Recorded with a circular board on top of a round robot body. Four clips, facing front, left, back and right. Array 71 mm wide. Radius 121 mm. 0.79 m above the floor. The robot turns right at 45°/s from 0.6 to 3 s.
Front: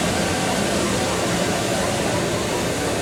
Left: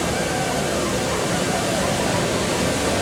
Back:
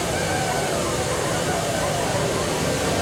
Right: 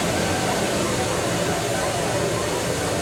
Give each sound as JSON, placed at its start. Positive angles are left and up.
{"t": 0.0, "sound": "running water", "azimuth_deg": -5, "distance_m": 1.5}